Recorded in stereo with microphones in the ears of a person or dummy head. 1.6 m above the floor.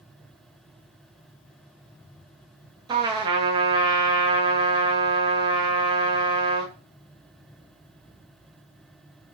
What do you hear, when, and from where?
2.9 s a trumpet: 30° right (ahead or behind), 0.9 m